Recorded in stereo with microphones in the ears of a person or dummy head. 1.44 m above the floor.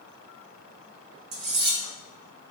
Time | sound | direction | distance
1.3 | cutlery clinking | 60° right (ahead or behind) | 1.0 m